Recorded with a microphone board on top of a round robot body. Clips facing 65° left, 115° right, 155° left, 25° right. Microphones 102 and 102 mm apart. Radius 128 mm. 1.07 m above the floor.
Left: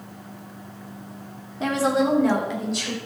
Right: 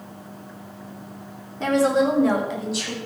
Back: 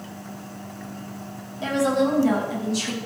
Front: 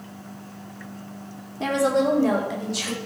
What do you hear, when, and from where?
1.6 s a woman speaking: 15° right, 2.5 m; by 3.0 s 25° right, 4.5 m